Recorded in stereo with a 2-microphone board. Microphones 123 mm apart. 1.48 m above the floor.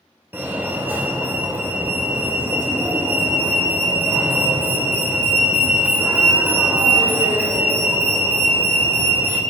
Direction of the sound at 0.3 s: 20° right (ahead or behind).